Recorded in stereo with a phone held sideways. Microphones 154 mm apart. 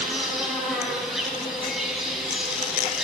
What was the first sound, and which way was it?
An insect, centre (ahead or behind).